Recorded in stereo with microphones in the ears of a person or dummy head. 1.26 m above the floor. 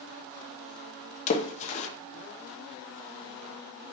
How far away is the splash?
About 0.5 m.